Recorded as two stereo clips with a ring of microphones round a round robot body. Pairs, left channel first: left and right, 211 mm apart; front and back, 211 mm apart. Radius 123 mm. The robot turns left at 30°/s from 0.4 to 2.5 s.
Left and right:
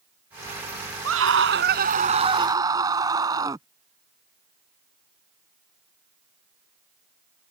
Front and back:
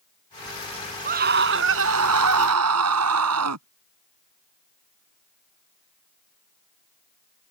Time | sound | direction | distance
1.1 | a scream | 125° right | ?